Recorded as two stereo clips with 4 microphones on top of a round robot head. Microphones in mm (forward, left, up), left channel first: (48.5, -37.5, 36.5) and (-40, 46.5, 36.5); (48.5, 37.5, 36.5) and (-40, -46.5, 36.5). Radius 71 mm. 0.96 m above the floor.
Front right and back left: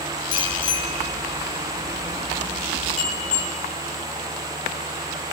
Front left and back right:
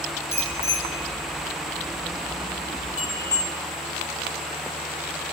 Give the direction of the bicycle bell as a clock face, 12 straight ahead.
1 o'clock.